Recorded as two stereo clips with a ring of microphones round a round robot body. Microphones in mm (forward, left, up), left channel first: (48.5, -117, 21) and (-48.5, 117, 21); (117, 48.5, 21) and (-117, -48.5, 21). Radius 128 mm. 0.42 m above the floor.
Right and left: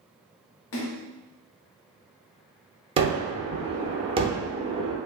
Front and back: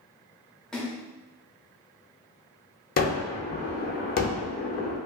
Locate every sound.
0.7 s a splash: 65° right, 0.6 m
3.0 s a gunshot: 55° left, 0.6 m